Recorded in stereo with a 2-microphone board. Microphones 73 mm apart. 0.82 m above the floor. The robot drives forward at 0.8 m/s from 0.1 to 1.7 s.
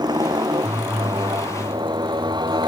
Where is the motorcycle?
70° right (ahead or behind); by 2.7 s 80° right.